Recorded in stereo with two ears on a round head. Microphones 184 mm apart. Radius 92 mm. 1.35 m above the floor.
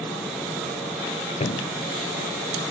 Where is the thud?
30° left (ahead or behind).